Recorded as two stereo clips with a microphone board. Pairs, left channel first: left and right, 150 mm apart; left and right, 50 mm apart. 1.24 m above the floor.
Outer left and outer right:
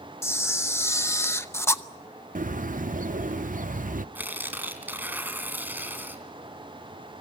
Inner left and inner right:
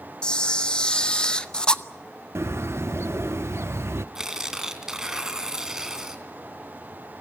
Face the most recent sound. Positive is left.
turn(degrees=-10)  # may be behind; listen again after turning